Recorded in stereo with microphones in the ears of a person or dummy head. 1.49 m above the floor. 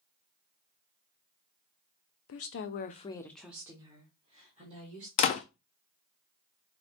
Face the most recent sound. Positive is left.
turn(degrees=40)  # may be behind; listen again after turning